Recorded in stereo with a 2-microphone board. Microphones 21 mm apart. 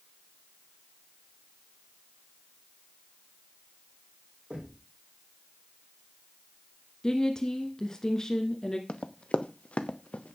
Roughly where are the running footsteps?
Left.